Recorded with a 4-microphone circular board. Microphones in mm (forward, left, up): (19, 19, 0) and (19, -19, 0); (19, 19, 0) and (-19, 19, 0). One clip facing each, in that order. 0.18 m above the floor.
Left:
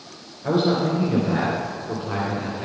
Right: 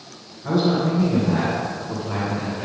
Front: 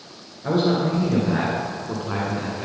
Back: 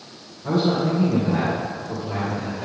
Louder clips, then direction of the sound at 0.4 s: Even, even; 30° left.